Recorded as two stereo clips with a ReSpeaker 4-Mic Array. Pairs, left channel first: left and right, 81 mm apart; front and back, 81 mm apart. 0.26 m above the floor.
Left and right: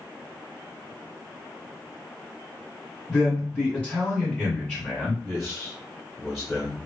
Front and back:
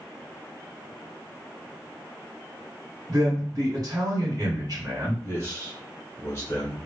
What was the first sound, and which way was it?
A man speaking, 165° left.